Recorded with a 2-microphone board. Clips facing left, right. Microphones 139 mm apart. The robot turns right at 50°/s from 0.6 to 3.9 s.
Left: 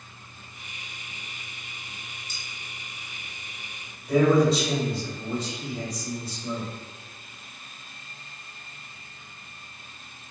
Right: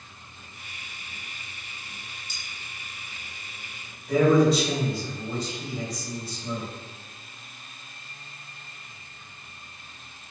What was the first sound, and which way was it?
Cutlery clinking, 35° right (ahead or behind).